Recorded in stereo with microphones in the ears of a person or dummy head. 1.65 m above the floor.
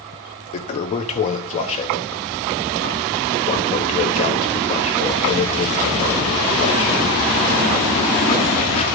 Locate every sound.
0.5 s a toilet flushing: 30° left (ahead or behind), 0.6 m